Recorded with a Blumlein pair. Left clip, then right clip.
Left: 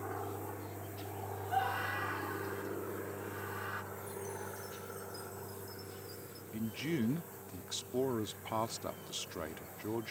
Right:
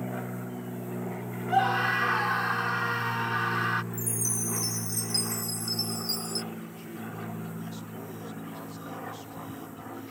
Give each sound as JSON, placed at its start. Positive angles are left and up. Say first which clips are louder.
{"t": 1.5, "sound": "a scream", "louder": "right 10 dB", "azimuth_deg": -65}
{"t": 3.9, "sound": "a chime", "louder": "right 9 dB", "azimuth_deg": -40}
{"t": 6.5, "sound": "a man speaking", "louder": "left 3 dB", "azimuth_deg": 60}